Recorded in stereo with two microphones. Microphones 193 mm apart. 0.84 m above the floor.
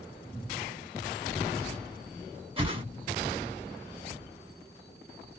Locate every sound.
2.6 s a whoosh: 30° right (ahead or behind), 1.0 m